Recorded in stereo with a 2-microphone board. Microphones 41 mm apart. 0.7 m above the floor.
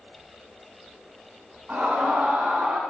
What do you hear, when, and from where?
1.7 s a scream: 30° right (ahead or behind), 7 m; by 2.8 s 25° right (ahead or behind), 7 m